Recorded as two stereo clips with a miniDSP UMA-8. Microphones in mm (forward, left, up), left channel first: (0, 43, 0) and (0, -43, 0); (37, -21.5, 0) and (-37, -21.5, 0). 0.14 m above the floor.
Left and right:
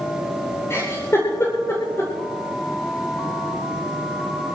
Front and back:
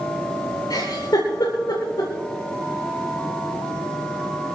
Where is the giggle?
30° left, 8.5 m.